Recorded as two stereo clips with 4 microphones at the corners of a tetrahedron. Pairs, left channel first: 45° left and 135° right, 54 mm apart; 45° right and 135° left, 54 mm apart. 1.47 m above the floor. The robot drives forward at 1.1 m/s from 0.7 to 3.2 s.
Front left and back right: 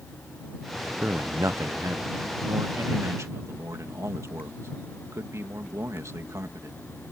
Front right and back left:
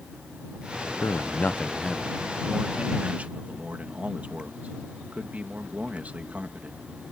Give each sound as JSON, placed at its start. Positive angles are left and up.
{"t": 1.0, "sound": "a man speaking", "azimuth_deg": -65}